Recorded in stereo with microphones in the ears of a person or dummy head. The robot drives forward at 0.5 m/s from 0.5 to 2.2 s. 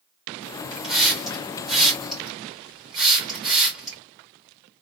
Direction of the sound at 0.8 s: Centre (ahead or behind).